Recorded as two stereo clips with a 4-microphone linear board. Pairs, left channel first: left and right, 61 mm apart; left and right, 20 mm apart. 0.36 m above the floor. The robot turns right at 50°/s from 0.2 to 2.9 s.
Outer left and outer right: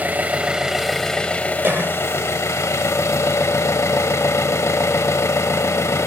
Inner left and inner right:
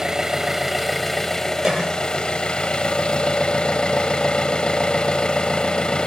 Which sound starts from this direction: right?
A cough, at 1.6 s.